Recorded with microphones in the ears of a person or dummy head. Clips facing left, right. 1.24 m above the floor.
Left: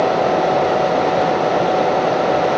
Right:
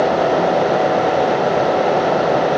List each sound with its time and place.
Only background noise.